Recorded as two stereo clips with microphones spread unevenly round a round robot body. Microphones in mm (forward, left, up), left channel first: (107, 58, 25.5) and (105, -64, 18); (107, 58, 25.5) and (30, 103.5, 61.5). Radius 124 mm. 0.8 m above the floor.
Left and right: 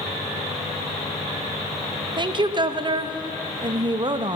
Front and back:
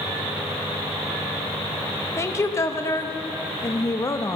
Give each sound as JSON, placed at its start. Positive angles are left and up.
{"t": 2.2, "sound": "a woman speaking", "azimuth_deg": -50, "distance_m": 0.6}